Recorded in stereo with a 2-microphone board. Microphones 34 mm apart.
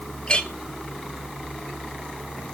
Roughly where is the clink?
Left.